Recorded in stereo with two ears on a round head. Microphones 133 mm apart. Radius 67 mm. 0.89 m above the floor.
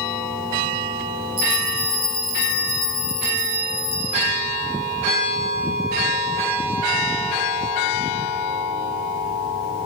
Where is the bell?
35° right (ahead or behind), 9 m.